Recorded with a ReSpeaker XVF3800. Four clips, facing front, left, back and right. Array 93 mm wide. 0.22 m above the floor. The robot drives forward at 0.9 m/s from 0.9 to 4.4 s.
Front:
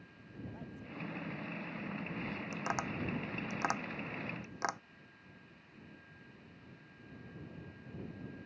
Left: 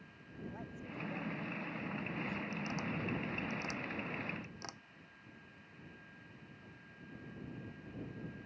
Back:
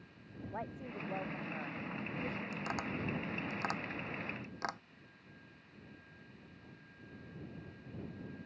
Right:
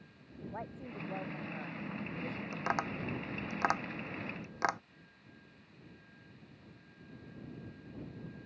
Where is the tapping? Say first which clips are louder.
Right 5 dB, front 2 dB; 70° right; by 4.8 s 75° right.